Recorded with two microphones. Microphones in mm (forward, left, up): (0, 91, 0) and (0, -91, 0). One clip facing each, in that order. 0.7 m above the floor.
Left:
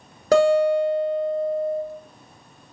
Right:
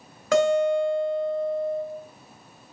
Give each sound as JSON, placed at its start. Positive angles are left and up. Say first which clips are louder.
{"t": 0.3, "sound": "a guitar", "louder": "left 4 dB", "side_deg": 35, "distance_m": 1.0}